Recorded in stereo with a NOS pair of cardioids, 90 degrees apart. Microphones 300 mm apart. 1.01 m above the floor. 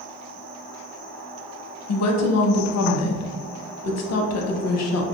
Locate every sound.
1.9 s a woman speaking: 60° left, 0.6 m